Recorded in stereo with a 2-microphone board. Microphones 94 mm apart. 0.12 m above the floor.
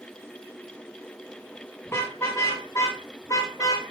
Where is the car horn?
25° left (ahead or behind), 7.5 m; by 3.8 s 35° left (ahead or behind), 7 m.